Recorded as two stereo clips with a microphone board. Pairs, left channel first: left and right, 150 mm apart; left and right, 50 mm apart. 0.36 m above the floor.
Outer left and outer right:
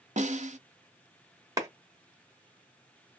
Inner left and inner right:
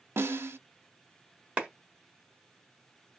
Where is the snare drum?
55° right (ahead or behind), 0.5 m.